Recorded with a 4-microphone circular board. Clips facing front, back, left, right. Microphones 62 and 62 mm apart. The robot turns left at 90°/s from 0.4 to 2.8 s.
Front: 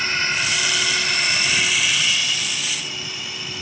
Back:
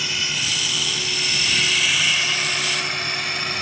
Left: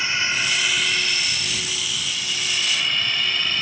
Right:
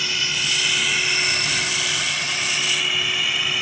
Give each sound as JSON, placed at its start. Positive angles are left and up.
{"t": 0.0, "sound": "a drone", "azimuth_deg": 35}